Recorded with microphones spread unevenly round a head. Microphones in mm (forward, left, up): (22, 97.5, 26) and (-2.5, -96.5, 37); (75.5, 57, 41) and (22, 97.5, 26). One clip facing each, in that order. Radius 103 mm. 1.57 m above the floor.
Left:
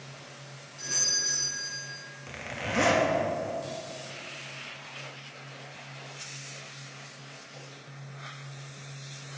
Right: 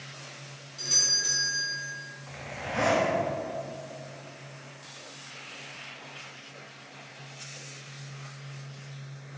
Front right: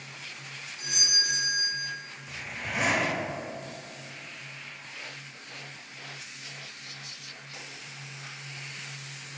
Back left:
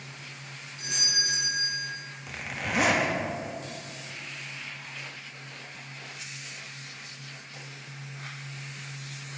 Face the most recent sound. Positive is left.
turn(degrees=130)